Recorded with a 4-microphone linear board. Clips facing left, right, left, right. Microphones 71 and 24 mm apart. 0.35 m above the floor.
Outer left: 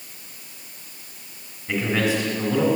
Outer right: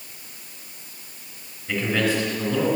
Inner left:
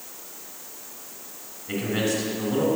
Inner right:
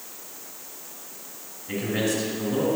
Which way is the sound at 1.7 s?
5° left (ahead or behind).